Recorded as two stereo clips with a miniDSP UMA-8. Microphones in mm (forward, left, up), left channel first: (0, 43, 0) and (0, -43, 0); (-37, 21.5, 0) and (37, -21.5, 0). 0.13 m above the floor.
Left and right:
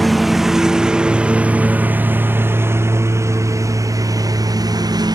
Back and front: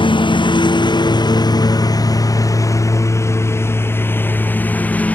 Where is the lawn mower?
Straight behind; by 5.2 s 135° right.